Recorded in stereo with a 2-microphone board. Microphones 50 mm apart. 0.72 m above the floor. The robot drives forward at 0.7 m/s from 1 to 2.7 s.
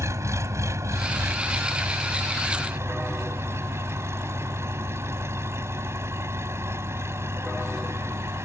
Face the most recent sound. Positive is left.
turn(degrees=-65)  # may be behind; listen again after turning